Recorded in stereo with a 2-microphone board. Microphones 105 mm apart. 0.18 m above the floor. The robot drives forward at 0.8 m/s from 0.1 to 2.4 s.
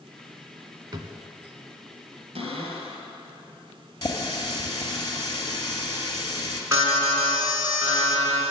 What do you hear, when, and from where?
0.9 s a drawer: 45° right (ahead or behind), 0.8 m; by 1.2 s 40° right (ahead or behind), 0.9 m
2.4 s a cupboard door: 55° right (ahead or behind), 2 m
4.0 s a running tap: 40° left (ahead or behind), 1.8 m
6.7 s an alarm: 25° right (ahead or behind), 3.5 m